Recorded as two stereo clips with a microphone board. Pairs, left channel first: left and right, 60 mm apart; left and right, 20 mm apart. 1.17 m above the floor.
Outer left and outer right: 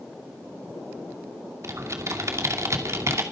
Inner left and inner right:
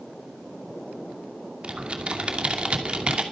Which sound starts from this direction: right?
Typing on a keyboard, at 1.6 s.